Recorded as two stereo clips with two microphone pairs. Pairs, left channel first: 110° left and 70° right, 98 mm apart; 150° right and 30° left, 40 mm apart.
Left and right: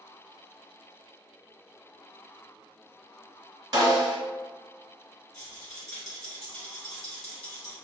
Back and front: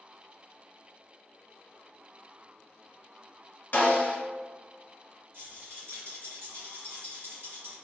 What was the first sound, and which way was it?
A snare drum, 115° right.